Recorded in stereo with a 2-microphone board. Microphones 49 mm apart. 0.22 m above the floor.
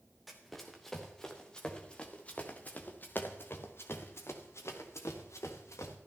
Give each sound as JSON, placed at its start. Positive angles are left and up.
{"t": 0.3, "sound": "running footsteps", "side_deg": 0, "distance_m": 3.0}